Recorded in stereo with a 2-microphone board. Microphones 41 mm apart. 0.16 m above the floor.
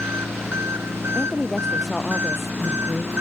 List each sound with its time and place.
0.0 s an engine running: 85° right
1.1 s a woman speaking: centre (ahead or behind)